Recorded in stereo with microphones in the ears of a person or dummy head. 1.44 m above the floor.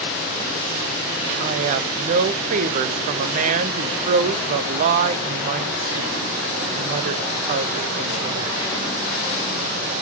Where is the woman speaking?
45° right (ahead or behind), 0.6 m.